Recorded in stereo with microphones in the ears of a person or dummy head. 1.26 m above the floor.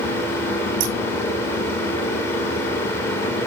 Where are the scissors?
40° right (ahead or behind), 1.6 m.